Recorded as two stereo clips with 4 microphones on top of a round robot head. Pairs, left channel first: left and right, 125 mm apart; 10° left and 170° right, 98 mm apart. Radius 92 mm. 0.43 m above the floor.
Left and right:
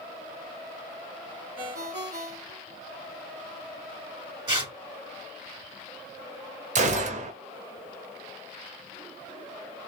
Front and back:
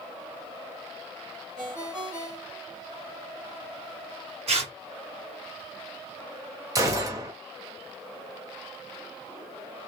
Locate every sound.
1.6 s a ringtone: 100° right, 2 m
4.5 s tearing paper: 150° right, 2.5 m
6.8 s a gunshot: 110° right, 1.0 m